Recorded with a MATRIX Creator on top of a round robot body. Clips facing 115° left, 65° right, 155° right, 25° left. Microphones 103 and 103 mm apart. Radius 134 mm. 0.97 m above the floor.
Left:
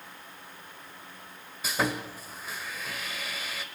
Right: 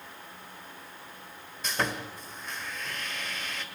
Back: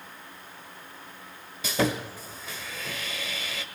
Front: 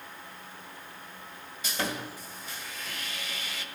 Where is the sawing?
165° right, 1.3 m.